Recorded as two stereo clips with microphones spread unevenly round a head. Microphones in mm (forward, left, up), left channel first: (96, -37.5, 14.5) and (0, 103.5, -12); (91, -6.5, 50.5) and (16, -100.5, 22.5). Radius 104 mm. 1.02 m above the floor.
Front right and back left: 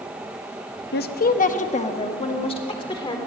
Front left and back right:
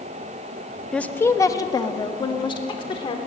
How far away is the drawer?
I don't hear a drawer.